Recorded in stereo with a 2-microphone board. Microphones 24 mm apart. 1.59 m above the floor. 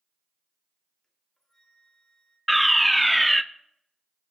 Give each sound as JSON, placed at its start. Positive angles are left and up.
{"t": 1.0, "sound": "a flute", "side_deg": 25, "distance_m": 2.5}
{"t": 2.5, "sound": "a fire alarm", "side_deg": 0, "distance_m": 0.5}